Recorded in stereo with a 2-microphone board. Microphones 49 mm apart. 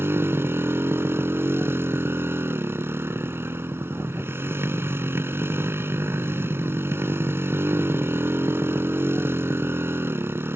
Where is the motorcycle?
55° right (ahead or behind).